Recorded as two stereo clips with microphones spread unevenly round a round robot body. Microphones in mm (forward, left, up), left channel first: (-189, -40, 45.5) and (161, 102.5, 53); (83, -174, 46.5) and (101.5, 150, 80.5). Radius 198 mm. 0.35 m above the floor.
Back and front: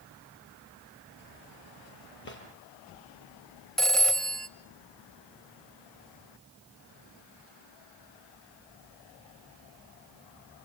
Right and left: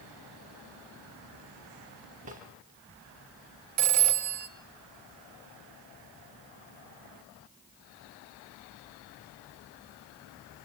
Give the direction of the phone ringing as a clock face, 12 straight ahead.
8 o'clock.